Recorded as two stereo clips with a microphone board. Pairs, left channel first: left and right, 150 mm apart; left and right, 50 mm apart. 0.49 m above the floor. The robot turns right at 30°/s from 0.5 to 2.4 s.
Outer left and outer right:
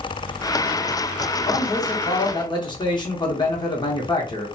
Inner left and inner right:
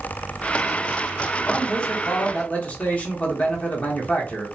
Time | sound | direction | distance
1.5 | a man speaking | 20° left (ahead or behind) | 0.8 m